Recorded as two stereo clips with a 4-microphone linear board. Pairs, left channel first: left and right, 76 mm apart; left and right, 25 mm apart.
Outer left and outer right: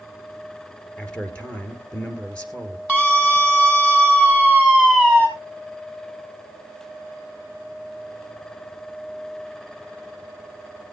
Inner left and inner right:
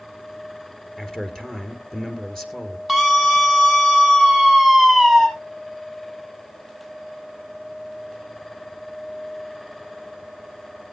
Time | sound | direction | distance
1.0 | a man speaking | 20° left (ahead or behind) | 2.5 m
2.9 | a scream | 10° left (ahead or behind) | 6 m